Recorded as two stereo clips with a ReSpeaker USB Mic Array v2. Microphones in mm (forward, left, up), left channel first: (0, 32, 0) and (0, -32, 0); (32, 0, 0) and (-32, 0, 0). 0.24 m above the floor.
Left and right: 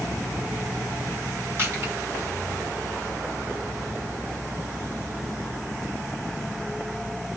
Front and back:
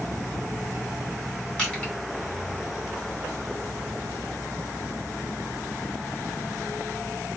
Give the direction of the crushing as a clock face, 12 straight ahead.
2 o'clock.